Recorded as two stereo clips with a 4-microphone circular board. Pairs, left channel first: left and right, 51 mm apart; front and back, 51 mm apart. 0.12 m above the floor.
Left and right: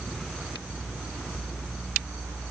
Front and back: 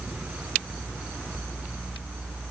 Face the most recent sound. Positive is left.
No sound to turn to.